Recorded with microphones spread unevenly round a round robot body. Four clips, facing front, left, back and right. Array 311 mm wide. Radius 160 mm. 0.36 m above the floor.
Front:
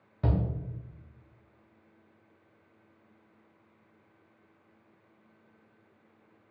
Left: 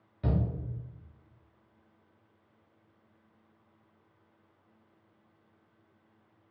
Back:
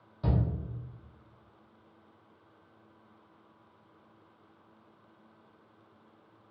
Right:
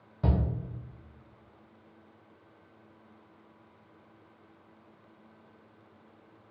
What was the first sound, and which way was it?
A shout, 35° right.